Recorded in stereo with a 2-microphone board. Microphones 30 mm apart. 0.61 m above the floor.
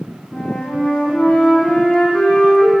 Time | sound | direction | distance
0.3 | a flute | 65° left (ahead or behind) | 2.5 m